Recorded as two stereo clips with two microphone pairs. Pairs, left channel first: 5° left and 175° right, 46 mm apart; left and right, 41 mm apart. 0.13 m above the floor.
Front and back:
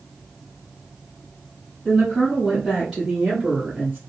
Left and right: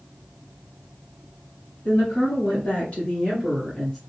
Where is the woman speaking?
90° left, 2 m; by 4.0 s 175° left, 1.3 m.